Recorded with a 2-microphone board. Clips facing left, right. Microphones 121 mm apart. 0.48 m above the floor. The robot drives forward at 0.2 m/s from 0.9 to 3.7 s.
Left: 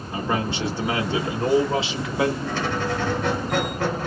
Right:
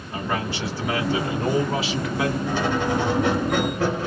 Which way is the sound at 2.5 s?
15° right (ahead or behind).